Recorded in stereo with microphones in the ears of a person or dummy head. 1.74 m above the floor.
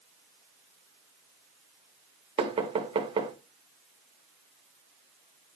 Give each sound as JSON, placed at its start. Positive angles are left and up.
{"t": 2.4, "sound": "knocking", "side_deg": -25, "distance_m": 2.5}